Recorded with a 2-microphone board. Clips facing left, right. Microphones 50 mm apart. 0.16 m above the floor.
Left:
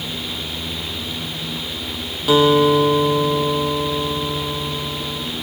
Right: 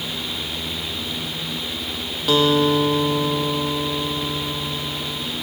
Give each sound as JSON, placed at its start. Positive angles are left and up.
{"t": 2.3, "sound": "a guitar", "side_deg": 5, "distance_m": 4.0}